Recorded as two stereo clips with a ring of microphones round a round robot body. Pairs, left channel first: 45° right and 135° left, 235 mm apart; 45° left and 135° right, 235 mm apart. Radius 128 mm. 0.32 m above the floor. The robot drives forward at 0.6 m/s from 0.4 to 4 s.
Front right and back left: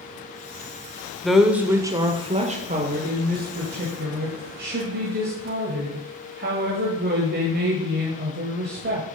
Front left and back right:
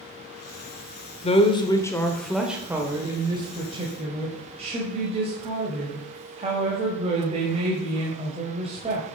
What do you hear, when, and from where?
1.2 s a woman speaking: 40° left, 1.1 m; by 9.1 s 165° left, 1.7 m